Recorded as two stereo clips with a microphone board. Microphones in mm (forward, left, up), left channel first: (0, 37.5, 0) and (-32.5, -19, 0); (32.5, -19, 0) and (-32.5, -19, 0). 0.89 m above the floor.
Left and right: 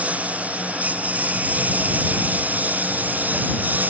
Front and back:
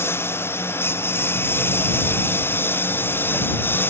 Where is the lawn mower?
55° right; by 3.9 s 60° right.